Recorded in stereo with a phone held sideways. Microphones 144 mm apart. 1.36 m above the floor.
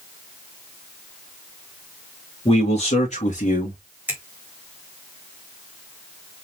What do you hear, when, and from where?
2.5 s a man speaking: 45° left (ahead or behind), 3 m; by 3.8 s 65° left (ahead or behind), 2.5 m
4.1 s a finger snap: 10° right (ahead or behind), 1.9 m